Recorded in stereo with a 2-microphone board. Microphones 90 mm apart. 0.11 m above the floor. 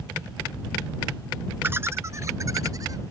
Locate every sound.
1.6 s laughter: 25° right (ahead or behind); by 3.0 s 40° right (ahead or behind)